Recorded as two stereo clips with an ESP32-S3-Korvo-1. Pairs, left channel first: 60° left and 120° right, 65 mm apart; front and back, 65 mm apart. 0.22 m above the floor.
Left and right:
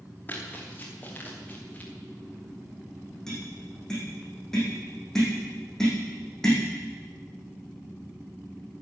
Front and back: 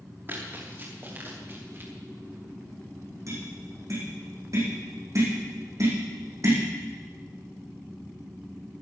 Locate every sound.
0.3 s running footsteps: 125° left, 8 m
3.3 s tapping: 145° left, 8.5 m